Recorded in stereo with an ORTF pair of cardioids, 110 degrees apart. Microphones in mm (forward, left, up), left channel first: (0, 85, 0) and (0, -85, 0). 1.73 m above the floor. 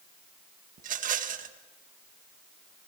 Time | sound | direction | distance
0.8 | a rattle | 55° right | 1.8 m